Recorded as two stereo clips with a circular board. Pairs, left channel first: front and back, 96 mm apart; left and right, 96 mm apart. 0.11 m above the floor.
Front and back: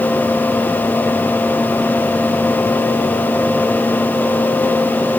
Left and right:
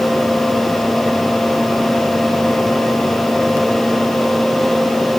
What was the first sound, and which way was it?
Only background noise.